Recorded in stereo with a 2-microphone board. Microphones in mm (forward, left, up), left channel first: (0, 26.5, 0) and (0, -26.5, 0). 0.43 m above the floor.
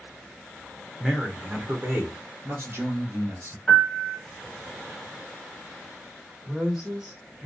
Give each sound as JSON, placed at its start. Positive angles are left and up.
{"t": 1.0, "sound": "a man speaking", "side_deg": -5, "distance_m": 0.8}
{"t": 3.7, "sound": "a piano", "side_deg": 10, "distance_m": 1.4}
{"t": 6.5, "sound": "a woman speaking", "side_deg": -10, "distance_m": 1.7}